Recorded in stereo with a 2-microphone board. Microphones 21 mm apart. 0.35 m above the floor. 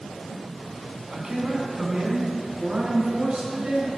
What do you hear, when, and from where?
1.1 s a man speaking: 35° right (ahead or behind), 3.5 m; by 3.9 s 50° right (ahead or behind), 5.5 m